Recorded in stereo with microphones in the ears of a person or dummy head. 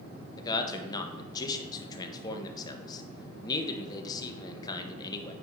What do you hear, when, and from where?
0.4 s a man speaking: 25° left (ahead or behind), 1.2 m